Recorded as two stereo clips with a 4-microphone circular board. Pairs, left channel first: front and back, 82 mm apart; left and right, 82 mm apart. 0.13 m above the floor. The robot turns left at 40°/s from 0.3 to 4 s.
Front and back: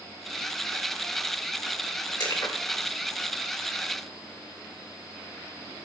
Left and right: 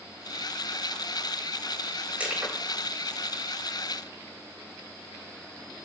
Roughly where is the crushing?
Ahead.